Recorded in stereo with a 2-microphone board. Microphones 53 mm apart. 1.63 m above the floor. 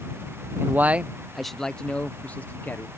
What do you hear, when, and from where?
0.6 s a man speaking: 45° right (ahead or behind); by 2.9 s 35° left (ahead or behind)